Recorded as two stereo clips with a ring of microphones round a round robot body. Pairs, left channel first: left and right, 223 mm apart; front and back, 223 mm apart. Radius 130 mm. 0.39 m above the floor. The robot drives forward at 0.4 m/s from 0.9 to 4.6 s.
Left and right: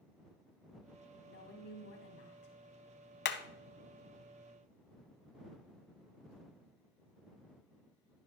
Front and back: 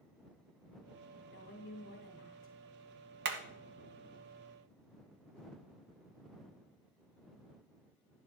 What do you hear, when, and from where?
1.2 s a woman speaking: 45° left, 3 m; by 2.5 s 55° left, 3 m
3.2 s hammering: 130° left, 0.9 m; by 3.4 s 135° left, 1.0 m